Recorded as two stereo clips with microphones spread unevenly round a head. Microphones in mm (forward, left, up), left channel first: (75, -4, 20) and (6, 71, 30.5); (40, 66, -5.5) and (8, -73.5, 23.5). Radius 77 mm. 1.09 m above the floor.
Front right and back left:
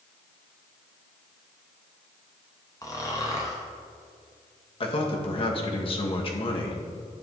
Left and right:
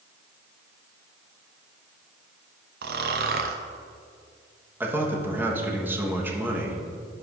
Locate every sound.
2.8 s snoring: 120° right, 0.5 m
4.8 s a man speaking: 25° right, 1.2 m